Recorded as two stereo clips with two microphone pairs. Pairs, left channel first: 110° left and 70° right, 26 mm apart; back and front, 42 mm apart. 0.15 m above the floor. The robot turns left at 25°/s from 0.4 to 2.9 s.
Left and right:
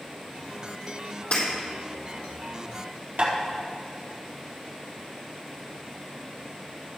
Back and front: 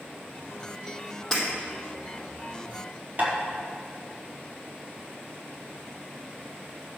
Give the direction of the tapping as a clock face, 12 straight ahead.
2 o'clock.